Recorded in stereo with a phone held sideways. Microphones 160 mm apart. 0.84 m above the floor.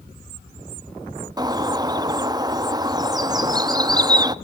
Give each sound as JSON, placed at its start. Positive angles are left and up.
{"t": 1.4, "sound": "a bird", "side_deg": -25, "distance_m": 0.7}